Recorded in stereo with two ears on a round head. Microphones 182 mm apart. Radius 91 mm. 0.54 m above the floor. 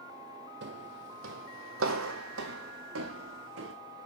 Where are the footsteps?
60° right (ahead or behind), 1.3 m; by 3.7 s 70° right (ahead or behind), 2.5 m.